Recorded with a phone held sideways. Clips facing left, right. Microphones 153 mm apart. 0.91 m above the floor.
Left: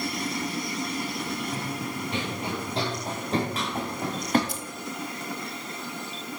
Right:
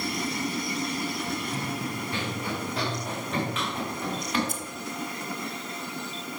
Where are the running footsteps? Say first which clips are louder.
Even; 15° left (ahead or behind), 4 m; by 4.4 s 45° left (ahead or behind), 3.5 m.